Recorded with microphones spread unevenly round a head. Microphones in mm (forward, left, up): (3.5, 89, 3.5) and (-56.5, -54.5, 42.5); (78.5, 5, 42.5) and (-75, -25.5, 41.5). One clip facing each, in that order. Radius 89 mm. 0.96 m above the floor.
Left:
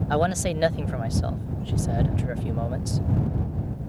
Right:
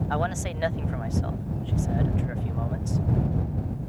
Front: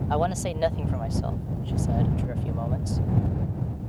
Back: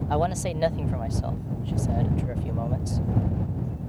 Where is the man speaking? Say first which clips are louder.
Left 8 dB, even; 105° left.